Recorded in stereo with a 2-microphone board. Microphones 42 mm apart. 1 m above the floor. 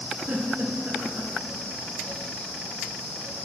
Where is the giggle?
45° right (ahead or behind), 2.0 m.